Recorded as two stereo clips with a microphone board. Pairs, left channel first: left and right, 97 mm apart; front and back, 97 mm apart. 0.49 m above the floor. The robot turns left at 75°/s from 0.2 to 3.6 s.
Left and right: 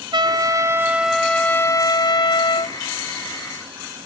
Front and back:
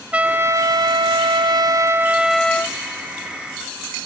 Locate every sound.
0.1 s a trumpet: 105° right, 0.6 m; by 2.8 s 60° left, 0.6 m